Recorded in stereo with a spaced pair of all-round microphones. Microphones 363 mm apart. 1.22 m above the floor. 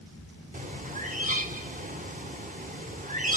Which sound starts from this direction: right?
A bird, at 0.5 s.